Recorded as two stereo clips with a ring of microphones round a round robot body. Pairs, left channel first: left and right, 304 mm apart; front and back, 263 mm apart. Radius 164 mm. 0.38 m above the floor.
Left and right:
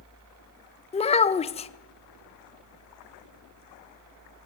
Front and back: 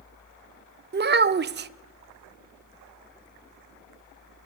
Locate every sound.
0.9 s a child speaking: 150° left, 0.5 m